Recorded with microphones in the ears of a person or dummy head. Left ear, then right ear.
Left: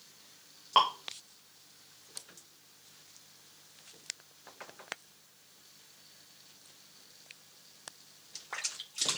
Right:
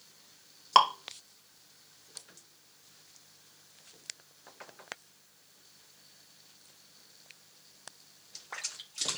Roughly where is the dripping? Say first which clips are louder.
Right 3 dB; right.